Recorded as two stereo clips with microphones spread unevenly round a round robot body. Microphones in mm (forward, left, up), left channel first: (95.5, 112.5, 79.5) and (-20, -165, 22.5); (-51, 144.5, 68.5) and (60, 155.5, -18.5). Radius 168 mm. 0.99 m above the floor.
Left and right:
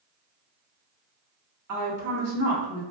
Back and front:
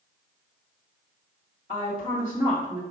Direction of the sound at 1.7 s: 90° right.